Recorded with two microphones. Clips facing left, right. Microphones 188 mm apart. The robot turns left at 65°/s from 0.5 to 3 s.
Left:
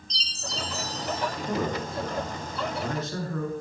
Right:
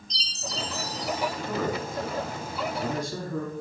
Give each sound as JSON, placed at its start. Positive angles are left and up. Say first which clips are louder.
{"t": 0.1, "sound": "a chime", "louder": "right 1 dB", "azimuth_deg": -175, "distance_m": 3.5}
{"t": 1.4, "sound": "a man speaking", "louder": "even", "side_deg": 20, "distance_m": 1.4}